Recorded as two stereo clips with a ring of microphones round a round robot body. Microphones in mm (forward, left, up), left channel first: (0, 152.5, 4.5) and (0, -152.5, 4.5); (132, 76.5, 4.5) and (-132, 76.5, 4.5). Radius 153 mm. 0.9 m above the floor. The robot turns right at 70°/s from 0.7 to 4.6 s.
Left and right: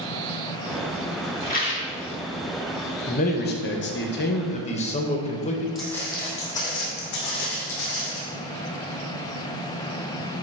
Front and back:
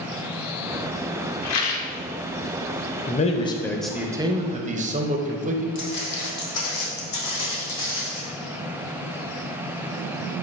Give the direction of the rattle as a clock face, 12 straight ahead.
11 o'clock.